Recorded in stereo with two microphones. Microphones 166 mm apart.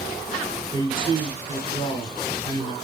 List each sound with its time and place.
0.7 s a man speaking: 30° left (ahead or behind), 1.4 m